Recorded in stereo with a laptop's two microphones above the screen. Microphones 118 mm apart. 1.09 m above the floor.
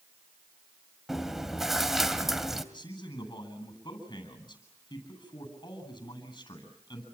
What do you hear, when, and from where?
1.1 s chewing: 5° right (ahead or behind), 2 m
2.7 s a man speaking: 35° left (ahead or behind), 9.5 m